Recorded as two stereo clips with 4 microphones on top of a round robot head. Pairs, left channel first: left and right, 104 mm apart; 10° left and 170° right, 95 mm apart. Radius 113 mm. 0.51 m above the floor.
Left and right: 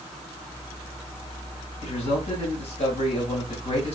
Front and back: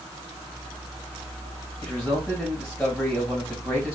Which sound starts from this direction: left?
A man speaking, at 1.8 s.